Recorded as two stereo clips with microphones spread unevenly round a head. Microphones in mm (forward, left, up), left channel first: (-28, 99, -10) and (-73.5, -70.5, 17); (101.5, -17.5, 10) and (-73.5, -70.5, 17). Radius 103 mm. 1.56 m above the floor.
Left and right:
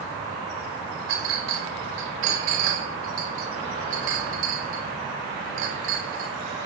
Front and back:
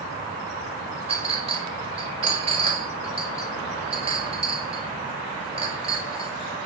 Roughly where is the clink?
Right.